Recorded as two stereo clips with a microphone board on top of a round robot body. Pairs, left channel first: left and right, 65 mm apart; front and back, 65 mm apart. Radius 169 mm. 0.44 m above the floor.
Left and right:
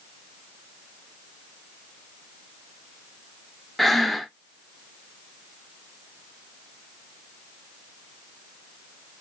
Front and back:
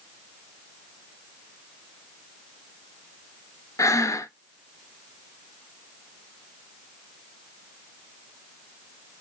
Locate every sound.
3.8 s breathing: straight ahead, 0.5 m